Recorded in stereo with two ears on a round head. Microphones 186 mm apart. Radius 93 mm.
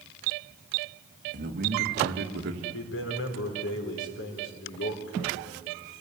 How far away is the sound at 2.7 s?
About 4.5 m.